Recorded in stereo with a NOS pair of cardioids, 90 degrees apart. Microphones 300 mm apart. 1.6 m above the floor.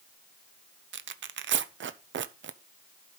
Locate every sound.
0.9 s tearing paper: 45° right, 0.7 m